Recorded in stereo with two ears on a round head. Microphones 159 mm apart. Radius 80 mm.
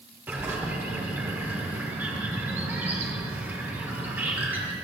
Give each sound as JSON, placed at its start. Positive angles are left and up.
{"t": 0.3, "sound": "a bird", "side_deg": -10, "distance_m": 0.9}